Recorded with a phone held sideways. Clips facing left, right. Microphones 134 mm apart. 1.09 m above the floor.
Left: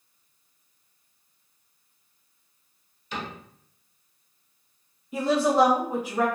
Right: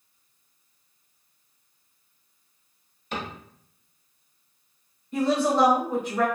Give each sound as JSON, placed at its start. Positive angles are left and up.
{"t": 3.1, "sound": "a cupboard door", "side_deg": -55, "distance_m": 0.9}
{"t": 5.1, "sound": "a woman speaking", "side_deg": 10, "distance_m": 0.6}